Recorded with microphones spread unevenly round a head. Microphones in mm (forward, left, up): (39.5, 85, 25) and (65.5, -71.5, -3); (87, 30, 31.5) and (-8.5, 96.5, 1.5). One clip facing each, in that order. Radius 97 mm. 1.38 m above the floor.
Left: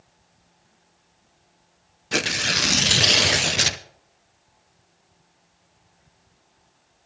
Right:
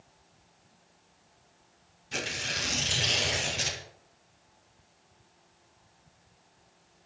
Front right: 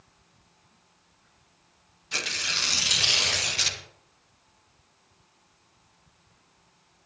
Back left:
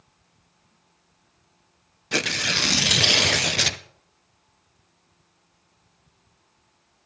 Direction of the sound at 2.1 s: 125° left.